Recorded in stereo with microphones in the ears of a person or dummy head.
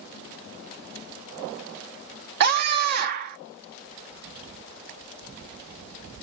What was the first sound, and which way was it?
A scream, 55° right (ahead or behind).